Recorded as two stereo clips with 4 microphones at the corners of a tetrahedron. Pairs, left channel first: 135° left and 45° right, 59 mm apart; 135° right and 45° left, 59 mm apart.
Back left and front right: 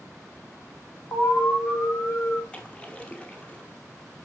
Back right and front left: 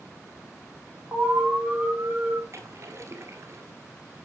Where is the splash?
70° left, 1.3 m.